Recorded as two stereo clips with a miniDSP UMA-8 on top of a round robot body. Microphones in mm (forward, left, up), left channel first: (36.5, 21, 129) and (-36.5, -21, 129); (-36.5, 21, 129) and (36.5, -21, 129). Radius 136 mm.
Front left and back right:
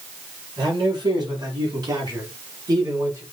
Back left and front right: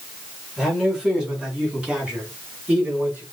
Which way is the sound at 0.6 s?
115° right.